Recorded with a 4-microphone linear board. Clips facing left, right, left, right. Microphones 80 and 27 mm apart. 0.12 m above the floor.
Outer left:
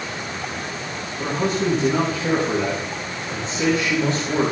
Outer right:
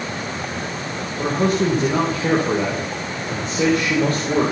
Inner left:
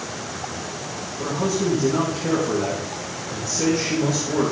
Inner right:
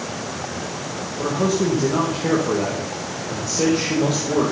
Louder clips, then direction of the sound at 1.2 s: Outer right 3 dB, inner right 3 dB; 60° right (ahead or behind).